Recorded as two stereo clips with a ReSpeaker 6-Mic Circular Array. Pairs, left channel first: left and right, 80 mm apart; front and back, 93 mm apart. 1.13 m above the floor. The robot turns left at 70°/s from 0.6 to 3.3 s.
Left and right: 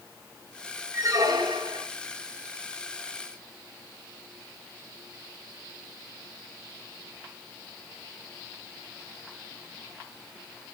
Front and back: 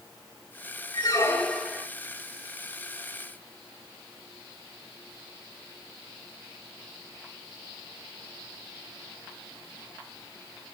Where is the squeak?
40° right, 2.5 m; by 1.9 s 105° right, 2.5 m.